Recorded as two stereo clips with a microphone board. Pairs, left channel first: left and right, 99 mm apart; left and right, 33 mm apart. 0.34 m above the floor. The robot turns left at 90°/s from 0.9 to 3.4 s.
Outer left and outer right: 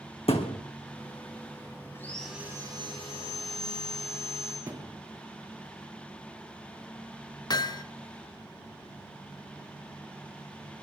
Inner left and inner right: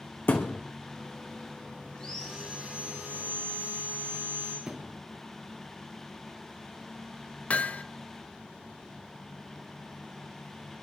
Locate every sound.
0.3 s a thud: 80° left, 2.5 m
1.9 s sawing: 25° left, 8 m; by 4.6 s 105° right, 8 m
4.7 s a thud: 35° right (ahead or behind), 2.5 m
7.5 s hammering: 45° left (ahead or behind), 0.7 m